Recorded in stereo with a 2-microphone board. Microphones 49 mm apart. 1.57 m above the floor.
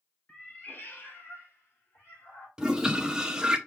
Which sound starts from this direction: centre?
A toilet flushing, at 2.6 s.